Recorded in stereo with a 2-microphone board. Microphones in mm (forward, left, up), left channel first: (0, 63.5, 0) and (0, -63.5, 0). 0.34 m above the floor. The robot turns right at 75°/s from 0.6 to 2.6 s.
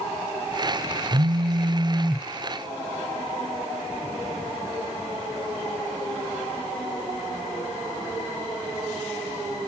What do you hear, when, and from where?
1.1 s a phone buzzing: 95° right, 1.0 m; by 2.3 s 5° right, 1.0 m